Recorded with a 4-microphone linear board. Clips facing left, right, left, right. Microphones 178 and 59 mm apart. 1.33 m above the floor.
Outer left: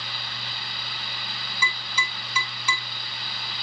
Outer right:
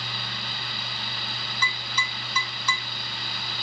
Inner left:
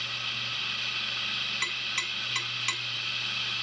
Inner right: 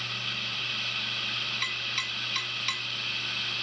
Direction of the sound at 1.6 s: 10° left (ahead or behind).